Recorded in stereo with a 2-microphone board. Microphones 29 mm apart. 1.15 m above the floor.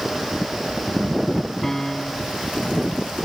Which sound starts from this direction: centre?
A piano, at 1.6 s.